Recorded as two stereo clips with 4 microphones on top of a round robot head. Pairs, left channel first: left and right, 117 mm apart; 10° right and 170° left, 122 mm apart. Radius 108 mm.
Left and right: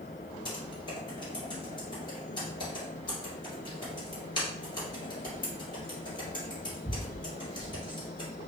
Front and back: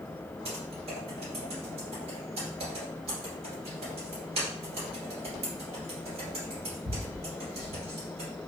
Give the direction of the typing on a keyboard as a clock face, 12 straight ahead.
7 o'clock.